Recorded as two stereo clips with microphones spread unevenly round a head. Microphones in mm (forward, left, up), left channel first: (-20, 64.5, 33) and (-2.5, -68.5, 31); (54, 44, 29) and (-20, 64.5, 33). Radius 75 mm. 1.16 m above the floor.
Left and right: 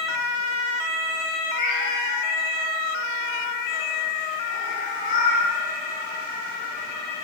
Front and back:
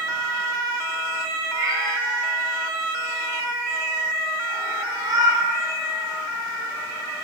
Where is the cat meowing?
125° left, 4.5 m.